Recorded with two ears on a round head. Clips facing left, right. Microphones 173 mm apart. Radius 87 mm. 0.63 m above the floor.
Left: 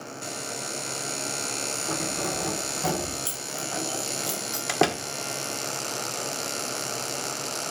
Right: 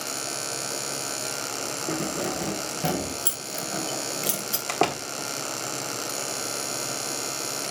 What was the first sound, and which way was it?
Keys jangling, 30° right (ahead or behind).